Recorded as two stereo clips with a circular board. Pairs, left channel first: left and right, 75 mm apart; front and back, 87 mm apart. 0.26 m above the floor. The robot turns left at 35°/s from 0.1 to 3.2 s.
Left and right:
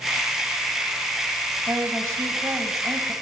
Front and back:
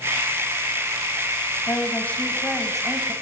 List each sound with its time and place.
1.7 s a woman speaking: 50° right, 1.8 m; by 3.1 s 100° right, 1.8 m